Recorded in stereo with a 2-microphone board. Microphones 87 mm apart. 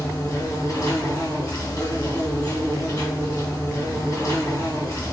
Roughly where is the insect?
Left.